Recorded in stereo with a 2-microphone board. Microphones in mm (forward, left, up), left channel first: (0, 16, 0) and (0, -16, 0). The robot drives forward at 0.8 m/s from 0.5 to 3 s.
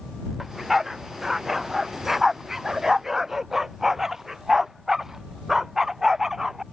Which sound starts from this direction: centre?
A dog barking, at 0.4 s.